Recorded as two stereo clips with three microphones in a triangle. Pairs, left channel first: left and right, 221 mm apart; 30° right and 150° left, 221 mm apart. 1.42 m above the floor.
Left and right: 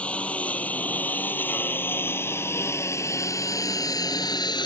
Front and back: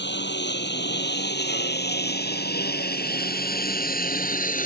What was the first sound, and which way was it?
A lawn mower, 5° left.